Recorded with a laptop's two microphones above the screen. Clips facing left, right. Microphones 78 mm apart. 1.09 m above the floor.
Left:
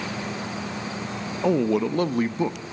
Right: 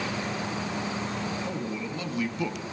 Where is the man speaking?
85° left, 1.1 m; by 2.6 s 25° left (ahead or behind), 1.5 m.